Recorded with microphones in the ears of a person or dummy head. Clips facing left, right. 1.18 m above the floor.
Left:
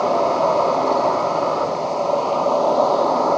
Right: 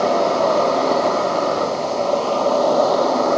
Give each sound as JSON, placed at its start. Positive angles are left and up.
{"t": 0.0, "sound": "an insect", "side_deg": -15, "distance_m": 1.3}